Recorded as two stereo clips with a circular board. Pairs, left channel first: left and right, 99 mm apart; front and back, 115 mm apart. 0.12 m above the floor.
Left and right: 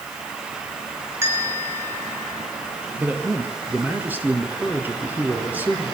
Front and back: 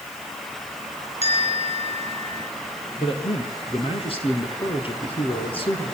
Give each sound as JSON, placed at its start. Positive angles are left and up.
{"t": 1.2, "sound": "a bell", "azimuth_deg": -25, "distance_m": 5.0}
{"t": 3.0, "sound": "a man speaking", "azimuth_deg": -20, "distance_m": 3.0}